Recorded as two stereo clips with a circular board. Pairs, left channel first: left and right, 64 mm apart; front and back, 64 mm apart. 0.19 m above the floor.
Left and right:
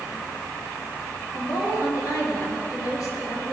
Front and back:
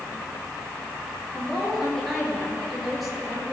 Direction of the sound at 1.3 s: 90° left.